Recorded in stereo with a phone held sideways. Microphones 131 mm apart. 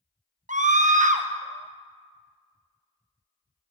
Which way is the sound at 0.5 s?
70° right (ahead or behind).